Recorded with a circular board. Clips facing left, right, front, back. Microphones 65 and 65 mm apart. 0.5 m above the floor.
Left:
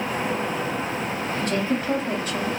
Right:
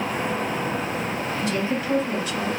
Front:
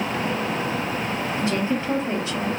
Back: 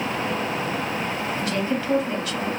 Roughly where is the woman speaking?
Ahead left.